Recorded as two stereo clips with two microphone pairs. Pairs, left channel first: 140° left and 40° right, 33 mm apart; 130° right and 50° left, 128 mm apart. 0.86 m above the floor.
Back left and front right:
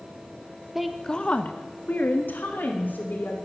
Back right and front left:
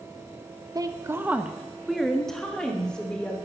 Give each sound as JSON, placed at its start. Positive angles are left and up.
{"t": 0.8, "sound": "a woman speaking", "azimuth_deg": 30, "distance_m": 0.7}